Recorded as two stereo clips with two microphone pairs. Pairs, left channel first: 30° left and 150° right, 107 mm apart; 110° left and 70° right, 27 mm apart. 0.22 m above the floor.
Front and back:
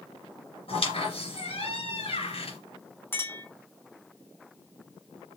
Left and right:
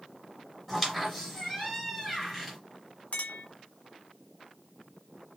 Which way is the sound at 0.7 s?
15° left.